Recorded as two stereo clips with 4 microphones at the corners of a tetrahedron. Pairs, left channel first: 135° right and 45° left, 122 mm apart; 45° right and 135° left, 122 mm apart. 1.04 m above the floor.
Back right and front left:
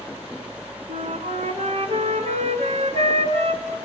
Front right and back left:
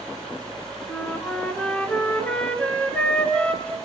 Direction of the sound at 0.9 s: 35° left.